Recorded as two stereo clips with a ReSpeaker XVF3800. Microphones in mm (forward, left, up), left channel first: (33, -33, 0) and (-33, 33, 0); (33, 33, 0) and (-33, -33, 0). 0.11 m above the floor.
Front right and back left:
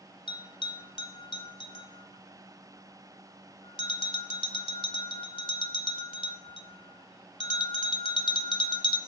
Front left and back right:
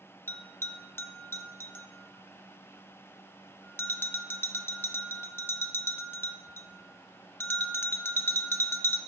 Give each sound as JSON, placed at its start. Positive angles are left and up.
{"t": 0.3, "sound": "a bell", "azimuth_deg": -20, "distance_m": 0.6}